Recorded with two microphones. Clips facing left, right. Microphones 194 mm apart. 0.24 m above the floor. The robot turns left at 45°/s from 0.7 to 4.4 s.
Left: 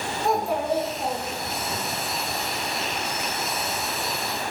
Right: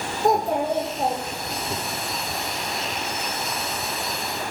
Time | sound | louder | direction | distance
0.2 | a child speaking | right 3 dB | 45° right | 6 m